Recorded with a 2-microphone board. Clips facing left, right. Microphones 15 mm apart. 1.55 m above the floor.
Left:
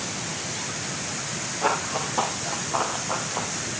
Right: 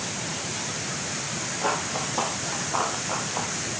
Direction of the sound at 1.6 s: 15° left (ahead or behind).